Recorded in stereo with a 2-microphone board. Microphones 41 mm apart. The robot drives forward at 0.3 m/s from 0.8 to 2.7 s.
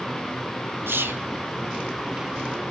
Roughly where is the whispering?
Right.